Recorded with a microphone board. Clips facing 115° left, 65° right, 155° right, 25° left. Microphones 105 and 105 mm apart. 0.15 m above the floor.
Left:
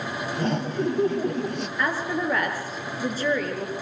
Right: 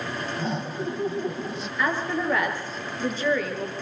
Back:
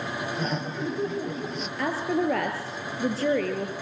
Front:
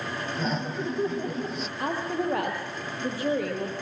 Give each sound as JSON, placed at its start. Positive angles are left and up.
{"t": 0.3, "sound": "laughter", "azimuth_deg": 110, "distance_m": 2.5}
{"t": 1.8, "sound": "a woman speaking", "azimuth_deg": -165, "distance_m": 9.5}